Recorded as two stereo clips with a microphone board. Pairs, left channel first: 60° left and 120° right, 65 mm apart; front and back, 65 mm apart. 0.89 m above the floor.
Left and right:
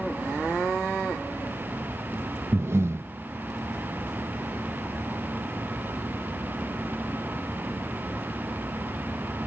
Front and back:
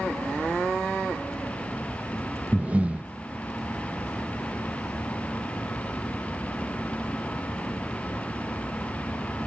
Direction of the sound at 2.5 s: 125° right.